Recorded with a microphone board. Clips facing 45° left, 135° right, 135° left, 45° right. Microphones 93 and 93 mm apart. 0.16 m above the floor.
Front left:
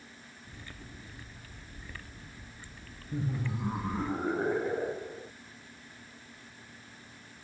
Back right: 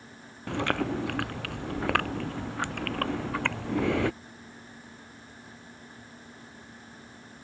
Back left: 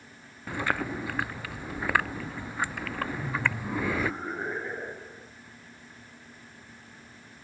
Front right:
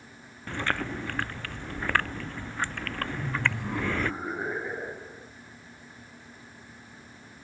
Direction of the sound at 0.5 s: 140° right.